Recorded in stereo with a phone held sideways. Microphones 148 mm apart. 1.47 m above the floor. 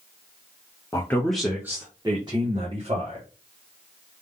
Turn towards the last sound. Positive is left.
turn(degrees=-45)  # may be behind; listen again after turning